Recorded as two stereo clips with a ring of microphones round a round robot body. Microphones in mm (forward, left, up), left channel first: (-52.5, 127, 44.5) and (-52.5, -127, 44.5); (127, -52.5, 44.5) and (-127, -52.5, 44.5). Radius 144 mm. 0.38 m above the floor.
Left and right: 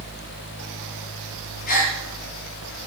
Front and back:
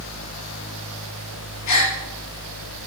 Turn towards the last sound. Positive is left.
turn(degrees=25)